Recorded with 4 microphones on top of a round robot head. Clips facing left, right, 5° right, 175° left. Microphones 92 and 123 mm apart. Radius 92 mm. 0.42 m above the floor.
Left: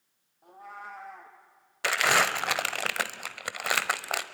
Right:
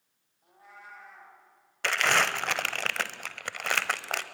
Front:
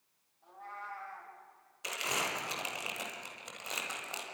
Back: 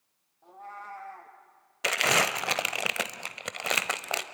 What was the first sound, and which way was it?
A cat meowing, 130° left.